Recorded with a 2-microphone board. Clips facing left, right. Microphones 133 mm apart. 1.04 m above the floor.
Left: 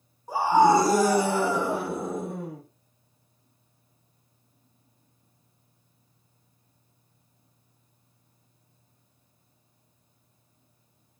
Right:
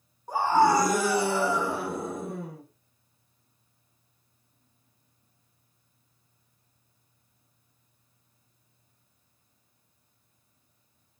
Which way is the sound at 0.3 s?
5° left (ahead or behind).